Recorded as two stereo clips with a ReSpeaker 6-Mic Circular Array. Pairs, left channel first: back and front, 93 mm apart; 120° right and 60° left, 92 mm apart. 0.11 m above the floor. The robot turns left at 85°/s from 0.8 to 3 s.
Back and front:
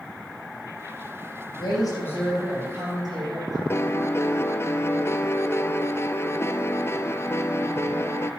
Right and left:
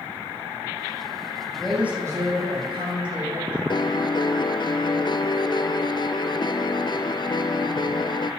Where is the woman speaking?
165° left, 5 m; by 3.6 s 35° left, 5 m.